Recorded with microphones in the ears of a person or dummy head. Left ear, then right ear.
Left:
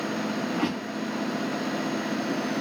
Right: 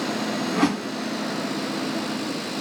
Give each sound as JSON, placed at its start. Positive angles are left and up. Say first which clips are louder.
{"t": 0.5, "sound": "a whoosh", "louder": "right 5 dB", "side_deg": -60, "distance_m": 1.7}